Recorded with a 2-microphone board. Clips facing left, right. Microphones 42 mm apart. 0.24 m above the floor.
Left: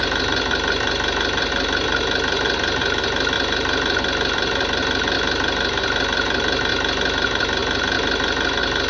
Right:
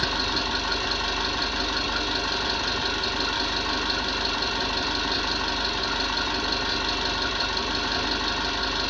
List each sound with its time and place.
0.0 s an engine running: 50° left (ahead or behind), 0.9 m